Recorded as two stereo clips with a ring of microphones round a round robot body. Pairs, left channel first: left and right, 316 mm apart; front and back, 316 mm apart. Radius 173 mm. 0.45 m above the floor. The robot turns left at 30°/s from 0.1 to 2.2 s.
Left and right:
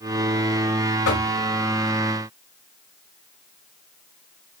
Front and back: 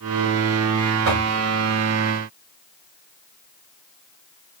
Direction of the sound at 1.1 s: 135° left.